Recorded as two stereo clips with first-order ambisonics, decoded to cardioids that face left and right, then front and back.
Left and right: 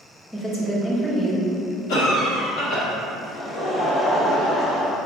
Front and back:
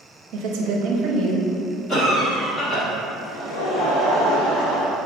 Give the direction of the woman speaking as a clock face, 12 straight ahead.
6 o'clock.